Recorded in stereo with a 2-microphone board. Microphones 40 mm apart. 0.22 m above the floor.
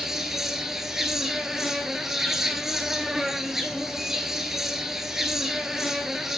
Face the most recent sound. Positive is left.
turn(degrees=-10)  # may be behind; listen again after turning